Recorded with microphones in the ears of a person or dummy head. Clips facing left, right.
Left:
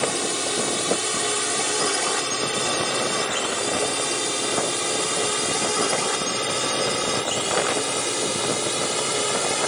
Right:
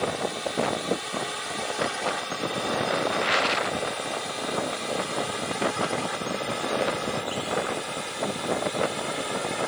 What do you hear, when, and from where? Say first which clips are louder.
0.0 s a drone: left 2 dB; 55° left (ahead or behind); by 9.7 s 50° left (ahead or behind)